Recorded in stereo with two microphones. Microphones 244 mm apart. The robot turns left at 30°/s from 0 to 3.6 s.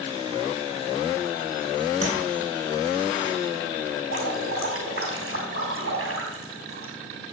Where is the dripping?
65° right (ahead or behind), 3 m.